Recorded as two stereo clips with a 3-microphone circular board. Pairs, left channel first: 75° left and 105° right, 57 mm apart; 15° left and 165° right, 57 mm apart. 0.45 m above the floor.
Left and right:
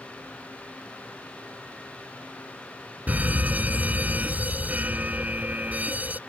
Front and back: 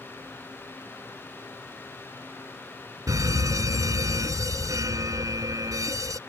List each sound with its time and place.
3.1 s a fire alarm: 165° right